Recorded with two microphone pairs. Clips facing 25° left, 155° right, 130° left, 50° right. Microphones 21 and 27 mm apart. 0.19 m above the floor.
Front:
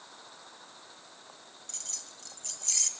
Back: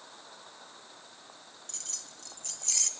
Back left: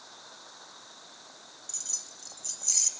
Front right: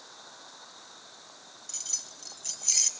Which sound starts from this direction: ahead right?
Keys jangling, at 1.7 s.